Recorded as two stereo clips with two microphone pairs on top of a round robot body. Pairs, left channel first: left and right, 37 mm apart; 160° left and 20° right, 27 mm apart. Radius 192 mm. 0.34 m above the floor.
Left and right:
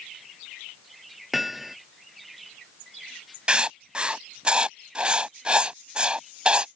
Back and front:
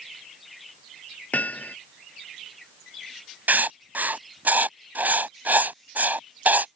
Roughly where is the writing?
Ahead right.